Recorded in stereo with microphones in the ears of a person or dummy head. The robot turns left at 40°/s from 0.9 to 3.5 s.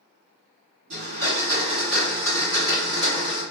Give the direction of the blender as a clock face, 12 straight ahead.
4 o'clock.